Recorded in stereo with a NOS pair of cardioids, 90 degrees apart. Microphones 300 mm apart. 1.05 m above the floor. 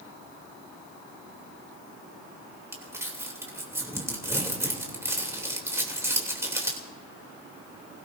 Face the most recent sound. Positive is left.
turn(degrees=-10)